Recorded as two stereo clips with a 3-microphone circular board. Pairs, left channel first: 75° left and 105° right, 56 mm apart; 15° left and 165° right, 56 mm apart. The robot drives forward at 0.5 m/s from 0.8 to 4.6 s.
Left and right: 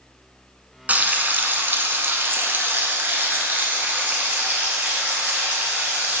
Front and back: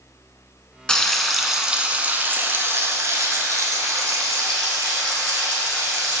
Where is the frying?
55° right, 0.8 m; by 6.2 s 165° right, 1.7 m.